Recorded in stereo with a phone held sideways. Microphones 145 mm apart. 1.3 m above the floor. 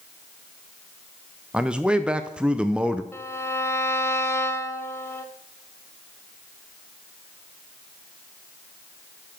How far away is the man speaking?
About 0.6 m.